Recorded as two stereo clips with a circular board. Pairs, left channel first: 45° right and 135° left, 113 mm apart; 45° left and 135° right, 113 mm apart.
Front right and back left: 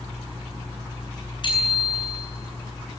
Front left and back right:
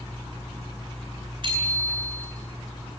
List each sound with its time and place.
1.4 s a bicycle bell: 90° right, 9 m